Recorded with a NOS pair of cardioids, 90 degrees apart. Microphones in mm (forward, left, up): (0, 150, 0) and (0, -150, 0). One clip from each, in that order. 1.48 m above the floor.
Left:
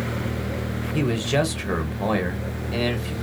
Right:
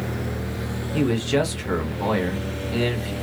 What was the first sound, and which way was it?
A man speaking, straight ahead.